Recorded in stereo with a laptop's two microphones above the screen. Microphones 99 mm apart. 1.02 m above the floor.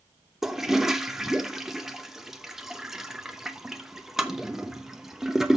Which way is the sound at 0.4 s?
5° right (ahead or behind).